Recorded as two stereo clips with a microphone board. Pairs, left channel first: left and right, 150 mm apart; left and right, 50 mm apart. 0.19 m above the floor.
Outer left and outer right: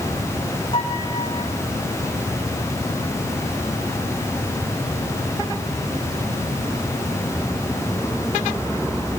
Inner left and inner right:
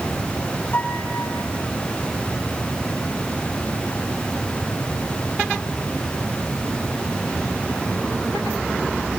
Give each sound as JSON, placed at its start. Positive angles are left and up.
{"t": 0.7, "sound": "a piano", "side_deg": 35, "distance_m": 7.0}